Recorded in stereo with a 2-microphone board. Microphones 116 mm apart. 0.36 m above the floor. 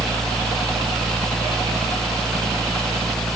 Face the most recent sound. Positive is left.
No sound to turn to.